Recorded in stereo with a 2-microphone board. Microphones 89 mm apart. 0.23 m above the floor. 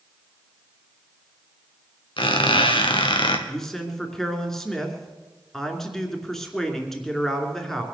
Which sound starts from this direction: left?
A squeak, at 2.2 s.